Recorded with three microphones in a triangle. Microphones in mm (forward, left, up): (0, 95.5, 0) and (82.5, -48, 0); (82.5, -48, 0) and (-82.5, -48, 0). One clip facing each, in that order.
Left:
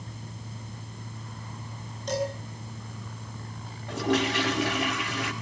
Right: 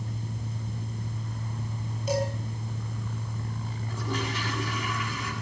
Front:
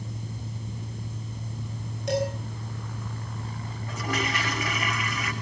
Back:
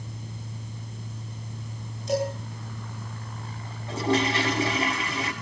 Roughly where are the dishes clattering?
Ahead.